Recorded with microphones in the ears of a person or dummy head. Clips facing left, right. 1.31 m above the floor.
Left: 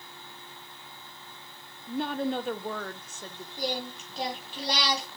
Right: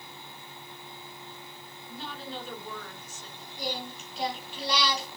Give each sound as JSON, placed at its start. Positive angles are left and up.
{"t": 1.9, "sound": "a woman speaking", "side_deg": 45, "distance_m": 0.9}
{"t": 3.6, "sound": "singing", "side_deg": 35, "distance_m": 3.5}